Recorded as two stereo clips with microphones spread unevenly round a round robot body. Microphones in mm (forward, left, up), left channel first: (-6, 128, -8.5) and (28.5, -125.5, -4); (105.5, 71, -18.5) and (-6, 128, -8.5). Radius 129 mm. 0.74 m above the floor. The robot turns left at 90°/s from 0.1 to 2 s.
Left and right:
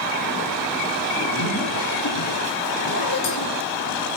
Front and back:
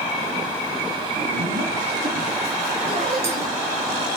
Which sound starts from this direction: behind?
A zipper, at 1.1 s.